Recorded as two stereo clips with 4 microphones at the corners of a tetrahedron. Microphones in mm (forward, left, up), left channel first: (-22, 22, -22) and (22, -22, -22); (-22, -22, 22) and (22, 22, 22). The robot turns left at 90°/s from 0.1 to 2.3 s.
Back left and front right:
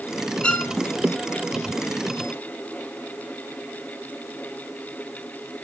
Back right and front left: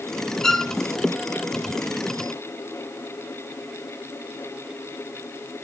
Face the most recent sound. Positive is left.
turn(degrees=-10)